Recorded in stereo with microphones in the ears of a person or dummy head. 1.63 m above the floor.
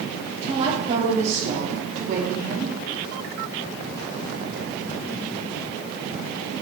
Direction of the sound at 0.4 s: 30° right (ahead or behind).